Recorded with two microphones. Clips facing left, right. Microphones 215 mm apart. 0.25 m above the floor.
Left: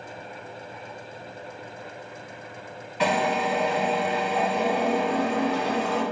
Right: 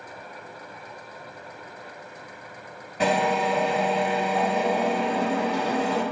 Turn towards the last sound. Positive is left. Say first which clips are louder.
# right 1 dB
turn(degrees=-45)  # may be behind; listen again after turning